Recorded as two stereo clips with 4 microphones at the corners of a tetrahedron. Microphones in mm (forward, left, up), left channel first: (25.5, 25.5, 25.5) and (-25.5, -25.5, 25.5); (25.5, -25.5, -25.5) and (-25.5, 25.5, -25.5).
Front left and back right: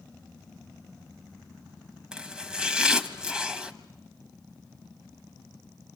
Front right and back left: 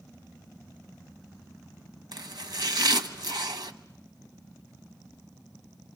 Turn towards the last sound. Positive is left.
turn(degrees=145)